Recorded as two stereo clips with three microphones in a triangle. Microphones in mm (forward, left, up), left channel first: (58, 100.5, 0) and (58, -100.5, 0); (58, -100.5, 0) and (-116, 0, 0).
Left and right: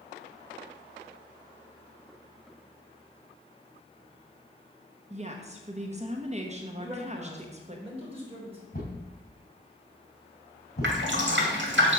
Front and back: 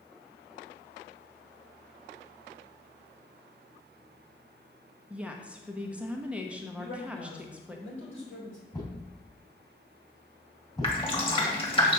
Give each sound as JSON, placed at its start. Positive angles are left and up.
{"t": 5.1, "sound": "a woman speaking", "azimuth_deg": -130, "distance_m": 0.8}
{"t": 6.8, "sound": "a man speaking", "azimuth_deg": -30, "distance_m": 4.0}
{"t": 8.7, "sound": "a thud", "azimuth_deg": 40, "distance_m": 3.0}
{"t": 10.8, "sound": "dripping", "azimuth_deg": -90, "distance_m": 2.0}